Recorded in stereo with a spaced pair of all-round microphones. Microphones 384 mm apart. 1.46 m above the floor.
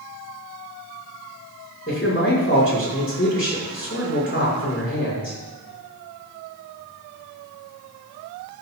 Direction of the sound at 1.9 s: 35° left (ahead or behind).